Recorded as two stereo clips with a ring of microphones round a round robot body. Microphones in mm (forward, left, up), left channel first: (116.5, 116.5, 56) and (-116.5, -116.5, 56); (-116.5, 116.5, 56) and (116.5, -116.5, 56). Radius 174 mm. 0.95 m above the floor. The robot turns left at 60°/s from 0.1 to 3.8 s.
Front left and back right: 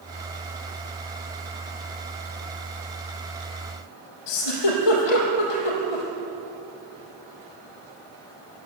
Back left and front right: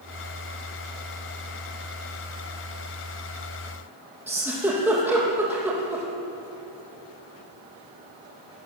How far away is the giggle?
About 5.5 m.